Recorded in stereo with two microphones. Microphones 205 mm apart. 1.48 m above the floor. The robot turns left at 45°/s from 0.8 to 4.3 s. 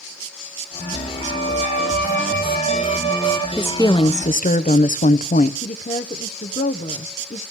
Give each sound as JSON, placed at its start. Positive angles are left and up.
{"t": 1.2, "sound": "a violin", "azimuth_deg": 115, "distance_m": 2.5}
{"t": 3.6, "sound": "a woman speaking", "azimuth_deg": 175, "distance_m": 0.6}
{"t": 5.6, "sound": "a woman speaking", "side_deg": 40, "distance_m": 0.7}